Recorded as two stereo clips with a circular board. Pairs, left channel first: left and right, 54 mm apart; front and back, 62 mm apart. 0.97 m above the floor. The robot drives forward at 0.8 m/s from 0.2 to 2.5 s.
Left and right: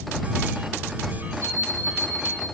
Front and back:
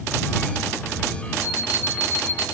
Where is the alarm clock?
120° right, 9.5 m; by 2.4 s 125° right, 10 m.